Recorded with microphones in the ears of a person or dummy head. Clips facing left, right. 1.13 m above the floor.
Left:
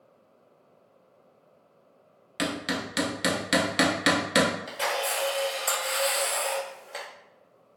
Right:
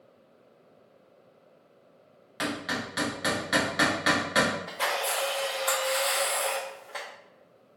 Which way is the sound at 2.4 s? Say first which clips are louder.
Left 2 dB; 35° left (ahead or behind).